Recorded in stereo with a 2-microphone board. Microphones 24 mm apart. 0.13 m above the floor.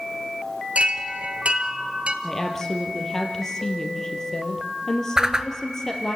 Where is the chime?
55° right (ahead or behind), 1.4 m.